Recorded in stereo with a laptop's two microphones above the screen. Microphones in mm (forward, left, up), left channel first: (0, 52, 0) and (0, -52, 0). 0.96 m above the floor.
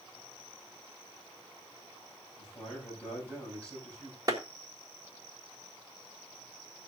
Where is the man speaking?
15° left (ahead or behind), 6.5 m.